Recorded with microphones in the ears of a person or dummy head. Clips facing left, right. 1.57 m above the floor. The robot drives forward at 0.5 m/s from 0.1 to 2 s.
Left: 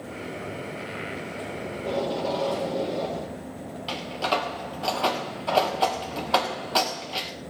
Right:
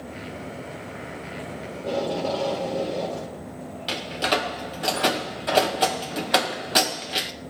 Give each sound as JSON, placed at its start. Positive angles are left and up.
{"t": 1.7, "sound": "tape being pulled", "side_deg": -5, "distance_m": 4.5}
{"t": 3.9, "sound": "a door slam", "side_deg": -25, "distance_m": 1.1}